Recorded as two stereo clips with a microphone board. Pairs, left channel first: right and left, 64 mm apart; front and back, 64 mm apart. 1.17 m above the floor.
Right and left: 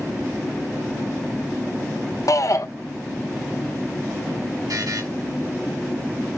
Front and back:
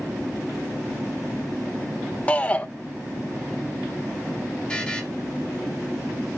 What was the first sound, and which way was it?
A shout, 65° right.